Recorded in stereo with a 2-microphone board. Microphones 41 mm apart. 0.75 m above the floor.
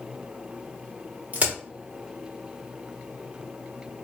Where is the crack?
35° right (ahead or behind), 1.5 m.